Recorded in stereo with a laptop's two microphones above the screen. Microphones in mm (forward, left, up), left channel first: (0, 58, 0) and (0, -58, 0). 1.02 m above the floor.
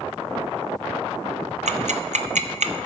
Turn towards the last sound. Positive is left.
turn(degrees=-80)